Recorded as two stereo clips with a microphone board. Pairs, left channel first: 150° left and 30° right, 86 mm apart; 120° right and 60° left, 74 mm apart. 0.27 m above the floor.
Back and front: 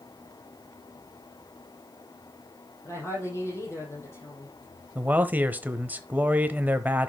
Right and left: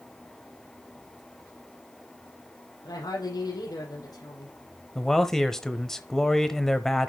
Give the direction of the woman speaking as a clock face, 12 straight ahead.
5 o'clock.